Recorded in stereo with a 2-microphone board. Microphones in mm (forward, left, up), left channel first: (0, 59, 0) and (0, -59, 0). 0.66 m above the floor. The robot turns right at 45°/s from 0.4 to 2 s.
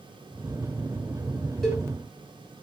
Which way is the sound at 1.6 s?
5° left (ahead or behind).